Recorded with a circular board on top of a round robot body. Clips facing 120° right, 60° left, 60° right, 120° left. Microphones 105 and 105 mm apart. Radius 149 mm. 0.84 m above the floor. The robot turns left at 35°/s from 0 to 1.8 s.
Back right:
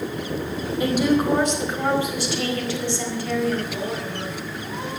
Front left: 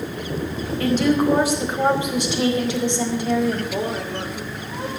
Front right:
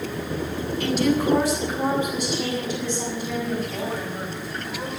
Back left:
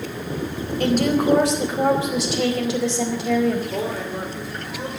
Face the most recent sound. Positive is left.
turn(degrees=115)